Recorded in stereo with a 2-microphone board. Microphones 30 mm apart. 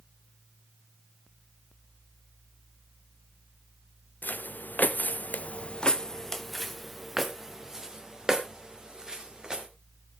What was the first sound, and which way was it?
Footsteps, 80° left.